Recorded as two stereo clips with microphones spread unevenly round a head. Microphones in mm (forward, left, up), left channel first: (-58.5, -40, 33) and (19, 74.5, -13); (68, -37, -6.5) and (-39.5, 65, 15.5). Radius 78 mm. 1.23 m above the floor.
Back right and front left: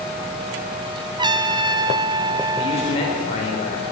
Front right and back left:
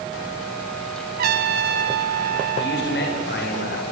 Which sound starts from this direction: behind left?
A trumpet, at 1.2 s.